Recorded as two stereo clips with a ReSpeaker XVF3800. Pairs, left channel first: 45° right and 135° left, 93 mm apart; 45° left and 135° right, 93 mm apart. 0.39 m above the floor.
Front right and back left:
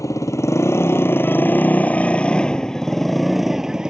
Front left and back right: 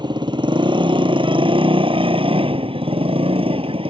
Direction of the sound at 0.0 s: 100° right.